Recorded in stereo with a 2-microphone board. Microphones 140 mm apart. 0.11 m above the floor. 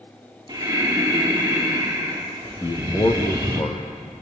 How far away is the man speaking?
About 3 m.